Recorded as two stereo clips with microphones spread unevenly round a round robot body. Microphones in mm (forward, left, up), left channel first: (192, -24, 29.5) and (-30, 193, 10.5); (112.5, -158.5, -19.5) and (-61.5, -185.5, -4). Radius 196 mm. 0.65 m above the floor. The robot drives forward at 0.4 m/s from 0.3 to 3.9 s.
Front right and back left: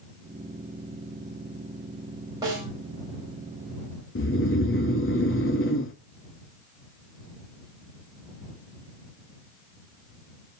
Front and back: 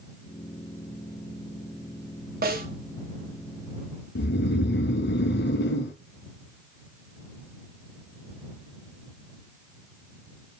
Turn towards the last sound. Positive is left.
turn(degrees=5)